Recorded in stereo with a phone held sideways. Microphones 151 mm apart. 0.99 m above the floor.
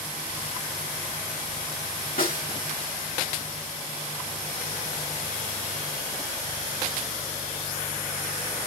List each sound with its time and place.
2.2 s a snare drum: 75° left (ahead or behind), 1.9 m